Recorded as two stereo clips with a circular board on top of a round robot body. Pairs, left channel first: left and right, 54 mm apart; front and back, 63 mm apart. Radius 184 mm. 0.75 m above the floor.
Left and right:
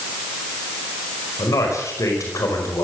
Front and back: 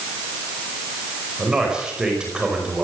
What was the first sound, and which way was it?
A man speaking, 105° left.